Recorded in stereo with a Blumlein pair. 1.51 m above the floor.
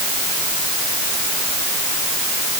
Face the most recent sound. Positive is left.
No sound to turn to.